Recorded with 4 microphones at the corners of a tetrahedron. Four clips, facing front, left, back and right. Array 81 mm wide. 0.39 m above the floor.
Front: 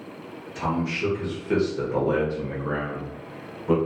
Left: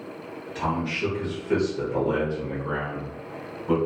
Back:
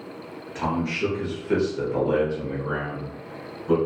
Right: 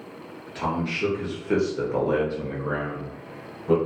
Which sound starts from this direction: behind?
A man speaking, at 0.6 s.